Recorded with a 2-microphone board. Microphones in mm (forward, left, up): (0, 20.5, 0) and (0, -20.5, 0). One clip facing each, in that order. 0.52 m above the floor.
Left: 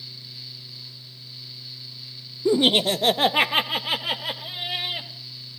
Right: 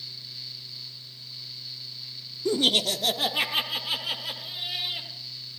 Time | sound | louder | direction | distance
2.5 | laughter | left 5 dB | 15° left (ahead or behind) | 0.8 m